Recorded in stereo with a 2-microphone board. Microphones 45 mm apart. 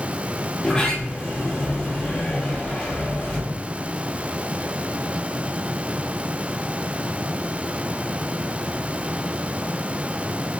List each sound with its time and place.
0.6 s a sliding door: 20° left (ahead or behind), 2 m